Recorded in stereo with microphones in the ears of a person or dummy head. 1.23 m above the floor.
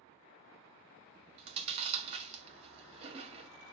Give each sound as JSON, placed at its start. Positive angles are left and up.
{"t": 1.4, "sound": "chewing", "side_deg": -30, "distance_m": 1.1}